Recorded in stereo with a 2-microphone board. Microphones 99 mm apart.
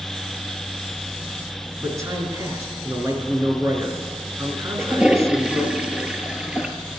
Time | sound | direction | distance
1.8 | a man speaking | 30° right (ahead or behind) | 3 m
4.8 | a toilet flushing | 10° right (ahead or behind) | 1.2 m